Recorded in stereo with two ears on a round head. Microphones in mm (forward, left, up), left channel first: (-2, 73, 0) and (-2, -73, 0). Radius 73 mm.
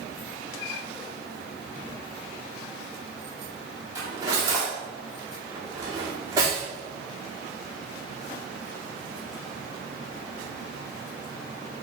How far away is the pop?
No pop in this recording.